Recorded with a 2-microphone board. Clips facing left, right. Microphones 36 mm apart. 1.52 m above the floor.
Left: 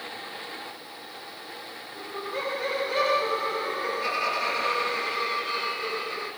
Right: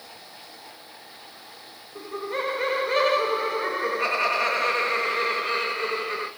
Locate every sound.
1.9 s laughter: 80° right, 0.8 m